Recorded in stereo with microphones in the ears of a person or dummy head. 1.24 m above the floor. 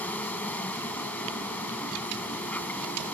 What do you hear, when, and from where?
0.0 s an insect: 10° left (ahead or behind)